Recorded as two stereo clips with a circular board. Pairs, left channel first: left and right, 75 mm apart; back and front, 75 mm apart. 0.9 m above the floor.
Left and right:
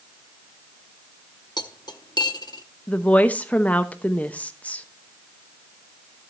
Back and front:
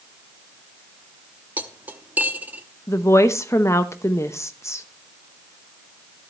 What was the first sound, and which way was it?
Cutlery clinking, 65° left.